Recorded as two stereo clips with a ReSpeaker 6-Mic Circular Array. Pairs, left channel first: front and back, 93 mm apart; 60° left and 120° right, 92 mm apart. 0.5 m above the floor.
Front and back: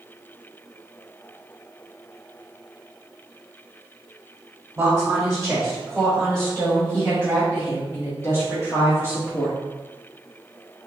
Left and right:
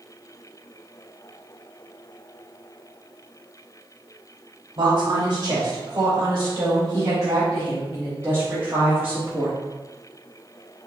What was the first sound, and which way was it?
A woman speaking, 105° right.